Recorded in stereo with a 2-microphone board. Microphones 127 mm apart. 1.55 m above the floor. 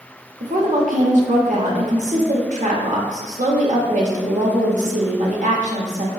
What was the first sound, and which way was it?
A woman speaking, 75° right (ahead or behind).